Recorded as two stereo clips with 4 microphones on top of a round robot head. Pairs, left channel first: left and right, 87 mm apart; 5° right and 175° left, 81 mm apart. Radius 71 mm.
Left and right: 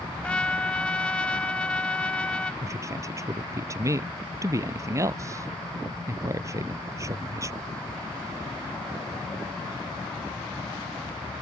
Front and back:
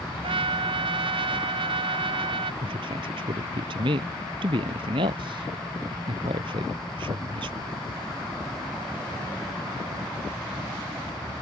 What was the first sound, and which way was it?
A trumpet, 170° left.